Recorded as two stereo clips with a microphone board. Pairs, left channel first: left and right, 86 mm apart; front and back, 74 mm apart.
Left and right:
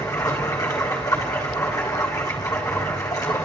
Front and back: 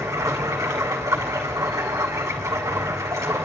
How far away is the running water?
About 4 m.